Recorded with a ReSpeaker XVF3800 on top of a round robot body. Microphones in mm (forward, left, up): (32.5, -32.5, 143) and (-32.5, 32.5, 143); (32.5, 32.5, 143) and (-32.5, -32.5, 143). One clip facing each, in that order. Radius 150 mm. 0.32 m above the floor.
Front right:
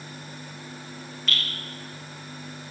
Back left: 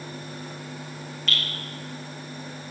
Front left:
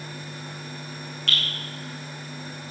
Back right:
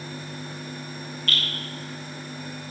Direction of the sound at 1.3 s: 45° left.